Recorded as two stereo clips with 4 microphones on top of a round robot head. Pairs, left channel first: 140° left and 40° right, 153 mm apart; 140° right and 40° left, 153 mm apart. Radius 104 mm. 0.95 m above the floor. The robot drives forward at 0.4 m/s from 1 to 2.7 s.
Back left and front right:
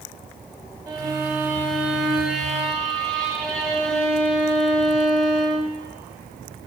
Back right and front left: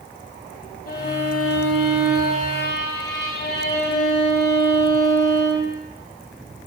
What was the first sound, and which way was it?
A violin, 110° right.